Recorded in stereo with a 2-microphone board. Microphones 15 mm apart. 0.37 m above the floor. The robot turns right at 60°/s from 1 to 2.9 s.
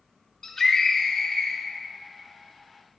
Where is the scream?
20° left (ahead or behind), 1.0 m; by 1.6 s 25° left (ahead or behind), 1.0 m.